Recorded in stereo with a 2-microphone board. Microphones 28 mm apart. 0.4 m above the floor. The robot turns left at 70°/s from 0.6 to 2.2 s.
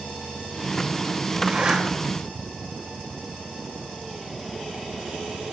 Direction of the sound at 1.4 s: 45° right (ahead or behind).